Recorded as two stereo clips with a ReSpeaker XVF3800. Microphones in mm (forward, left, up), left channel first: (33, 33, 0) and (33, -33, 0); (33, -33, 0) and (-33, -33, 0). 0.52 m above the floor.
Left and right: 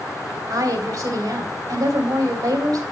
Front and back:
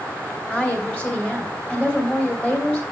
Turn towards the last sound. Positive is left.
turn(degrees=-70)